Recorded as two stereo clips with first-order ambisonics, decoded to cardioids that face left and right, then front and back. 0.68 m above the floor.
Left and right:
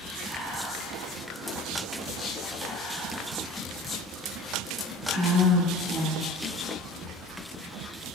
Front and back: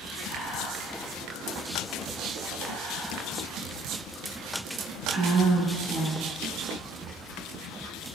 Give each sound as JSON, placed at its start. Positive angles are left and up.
{"t": 0.2, "sound": "whispering", "azimuth_deg": -150, "distance_m": 0.8}